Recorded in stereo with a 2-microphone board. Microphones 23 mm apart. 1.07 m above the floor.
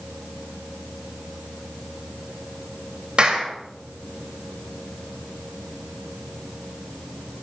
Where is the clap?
45° right (ahead or behind), 4 m.